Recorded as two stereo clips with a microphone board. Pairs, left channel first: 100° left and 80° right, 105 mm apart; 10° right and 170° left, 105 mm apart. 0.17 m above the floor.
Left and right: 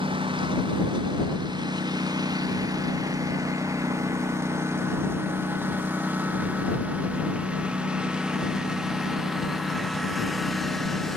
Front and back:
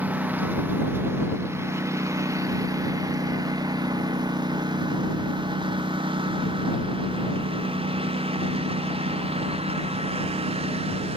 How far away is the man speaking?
No man speaking in this recording.